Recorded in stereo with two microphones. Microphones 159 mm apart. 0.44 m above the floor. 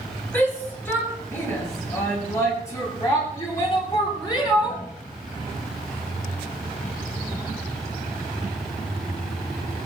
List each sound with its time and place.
0.3 s a shout: 10° left (ahead or behind), 9 m; by 4.8 s 25° left (ahead or behind), 11 m